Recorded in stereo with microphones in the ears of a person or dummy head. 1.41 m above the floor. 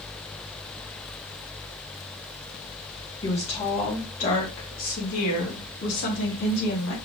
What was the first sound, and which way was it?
A woman speaking, 30° left (ahead or behind).